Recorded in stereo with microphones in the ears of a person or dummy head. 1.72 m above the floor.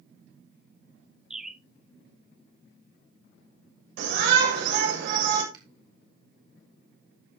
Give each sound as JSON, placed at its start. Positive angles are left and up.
{"t": 1.3, "sound": "a bird", "side_deg": 0, "distance_m": 0.9}
{"t": 4.0, "sound": "a shout", "side_deg": -70, "distance_m": 7.0}
{"t": 5.5, "sound": "a finger snap", "side_deg": -20, "distance_m": 2.5}